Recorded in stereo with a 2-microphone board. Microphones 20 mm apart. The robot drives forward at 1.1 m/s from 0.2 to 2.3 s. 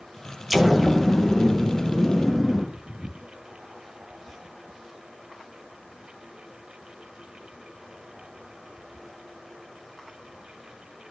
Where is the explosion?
10° right (ahead or behind), 0.9 m; by 2.6 s 5° right (ahead or behind), 3 m.